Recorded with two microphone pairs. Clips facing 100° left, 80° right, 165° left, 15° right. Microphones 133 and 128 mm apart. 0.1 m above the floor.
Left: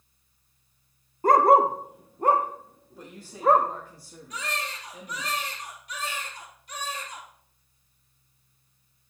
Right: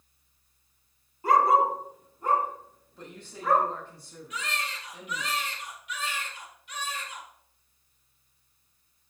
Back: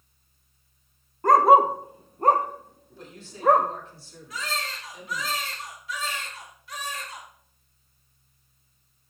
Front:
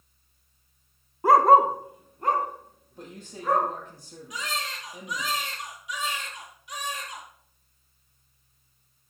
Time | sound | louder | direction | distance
1.2 | a dog barking | left 4 dB, even | 65° left | 0.8 m
3.0 | a man speaking | left 2 dB, back 1 dB | 20° left | 4.5 m
4.3 | a baby crying | left 2 dB, back 1 dB | 55° left | 2 m